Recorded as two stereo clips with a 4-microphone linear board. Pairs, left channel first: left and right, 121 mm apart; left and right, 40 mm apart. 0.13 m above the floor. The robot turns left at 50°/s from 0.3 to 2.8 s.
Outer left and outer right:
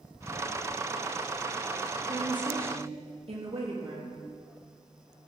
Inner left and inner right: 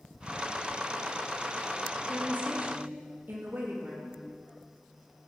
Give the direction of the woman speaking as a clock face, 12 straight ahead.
1 o'clock.